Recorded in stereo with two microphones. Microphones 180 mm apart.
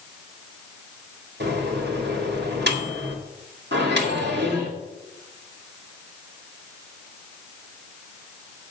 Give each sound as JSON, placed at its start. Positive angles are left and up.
{"t": 1.4, "sound": "a microwave", "side_deg": -70, "distance_m": 1.8}
{"t": 3.7, "sound": "a microwave", "side_deg": -75, "distance_m": 2.0}